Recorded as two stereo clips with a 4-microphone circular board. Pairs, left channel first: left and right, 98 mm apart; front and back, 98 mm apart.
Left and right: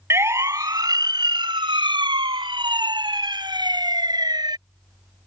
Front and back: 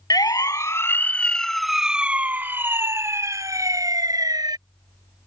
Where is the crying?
No crying in this recording.